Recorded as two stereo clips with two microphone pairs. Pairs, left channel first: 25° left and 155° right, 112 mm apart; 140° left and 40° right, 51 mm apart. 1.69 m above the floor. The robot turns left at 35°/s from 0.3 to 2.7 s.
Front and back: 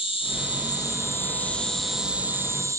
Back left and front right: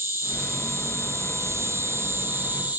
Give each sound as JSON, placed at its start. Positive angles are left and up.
{"t": 0.0, "sound": "an insect", "azimuth_deg": -10, "distance_m": 3.5}